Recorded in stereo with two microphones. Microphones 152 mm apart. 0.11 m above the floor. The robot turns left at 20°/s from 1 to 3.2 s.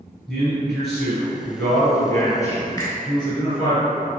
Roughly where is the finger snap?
Left.